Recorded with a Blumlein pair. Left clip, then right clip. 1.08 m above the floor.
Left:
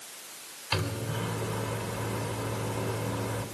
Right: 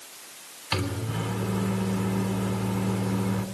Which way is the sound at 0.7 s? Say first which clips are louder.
Right 2 dB; 25° right.